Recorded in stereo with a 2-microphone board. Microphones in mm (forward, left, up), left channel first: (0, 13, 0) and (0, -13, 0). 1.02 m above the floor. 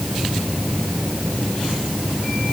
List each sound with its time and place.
Only background noise.